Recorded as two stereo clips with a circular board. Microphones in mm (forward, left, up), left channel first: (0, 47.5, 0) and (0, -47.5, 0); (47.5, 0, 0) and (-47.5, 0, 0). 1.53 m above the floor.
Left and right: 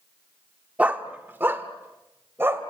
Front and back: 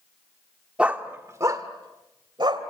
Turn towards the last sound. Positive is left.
turn(degrees=-150)